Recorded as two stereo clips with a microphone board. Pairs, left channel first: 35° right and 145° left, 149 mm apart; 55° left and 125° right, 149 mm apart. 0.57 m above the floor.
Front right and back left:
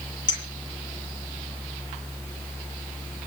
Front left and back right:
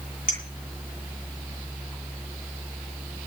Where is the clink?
25° left, 9 m.